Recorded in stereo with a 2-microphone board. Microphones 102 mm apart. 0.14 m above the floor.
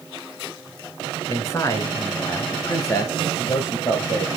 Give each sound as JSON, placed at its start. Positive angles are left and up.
{"t": 1.3, "sound": "a man speaking", "side_deg": 30, "distance_m": 1.2}